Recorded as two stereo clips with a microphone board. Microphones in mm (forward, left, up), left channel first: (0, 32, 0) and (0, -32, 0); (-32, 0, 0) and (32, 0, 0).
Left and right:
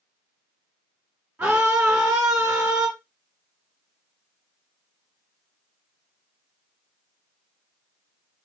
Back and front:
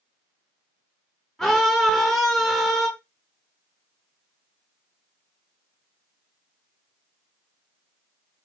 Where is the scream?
115° right, 1.3 m.